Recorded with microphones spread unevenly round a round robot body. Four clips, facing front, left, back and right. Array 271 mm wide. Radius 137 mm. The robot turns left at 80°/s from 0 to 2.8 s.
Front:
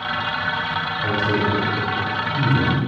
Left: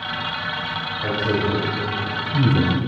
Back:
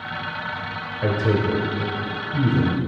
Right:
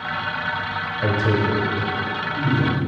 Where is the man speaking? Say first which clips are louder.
Right 1 dB, back 1 dB; 140° right, 1.5 m; by 2.8 s 75° left, 1.5 m.